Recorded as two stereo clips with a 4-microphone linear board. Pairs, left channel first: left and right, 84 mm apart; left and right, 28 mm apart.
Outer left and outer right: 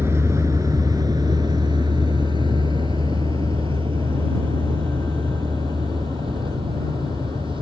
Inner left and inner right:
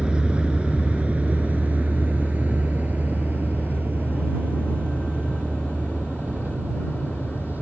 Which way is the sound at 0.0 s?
30° right (ahead or behind).